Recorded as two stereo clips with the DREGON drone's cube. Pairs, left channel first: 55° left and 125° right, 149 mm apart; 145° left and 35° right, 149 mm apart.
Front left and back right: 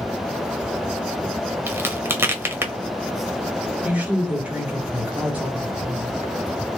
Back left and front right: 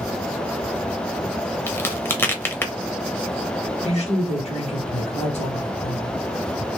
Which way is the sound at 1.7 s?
170° right.